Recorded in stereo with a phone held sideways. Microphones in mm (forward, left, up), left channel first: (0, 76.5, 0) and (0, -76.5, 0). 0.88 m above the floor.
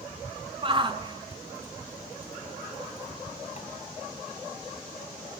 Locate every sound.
0.6 s a shout: 35° right (ahead or behind), 1.5 m; by 3.7 s 50° left (ahead or behind), 1.0 m